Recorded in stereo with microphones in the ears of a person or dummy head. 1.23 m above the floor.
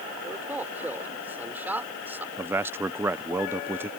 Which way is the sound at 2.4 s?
10° right (ahead or behind).